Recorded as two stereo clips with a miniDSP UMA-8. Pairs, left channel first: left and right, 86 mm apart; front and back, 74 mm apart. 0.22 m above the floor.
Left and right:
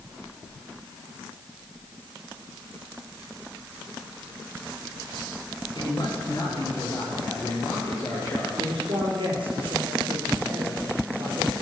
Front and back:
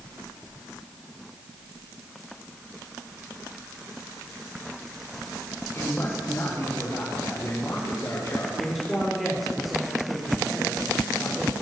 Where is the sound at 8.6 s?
90° right, 5 m.